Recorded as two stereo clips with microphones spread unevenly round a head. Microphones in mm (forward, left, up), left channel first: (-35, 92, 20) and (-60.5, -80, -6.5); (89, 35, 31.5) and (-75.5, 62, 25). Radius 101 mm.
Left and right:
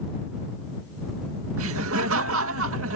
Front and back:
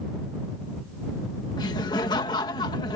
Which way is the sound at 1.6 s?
80° right.